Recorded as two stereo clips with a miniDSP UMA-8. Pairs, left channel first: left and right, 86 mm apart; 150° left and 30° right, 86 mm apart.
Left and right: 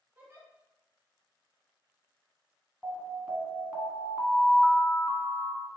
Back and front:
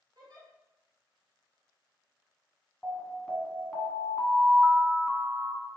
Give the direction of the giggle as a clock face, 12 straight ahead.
1 o'clock.